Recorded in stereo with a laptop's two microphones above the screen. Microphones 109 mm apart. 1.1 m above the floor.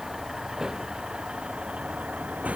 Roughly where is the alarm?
No alarm in this recording.